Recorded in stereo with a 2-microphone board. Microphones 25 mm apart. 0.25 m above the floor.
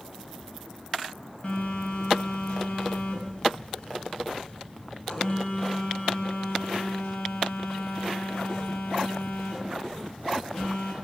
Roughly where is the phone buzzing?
Left.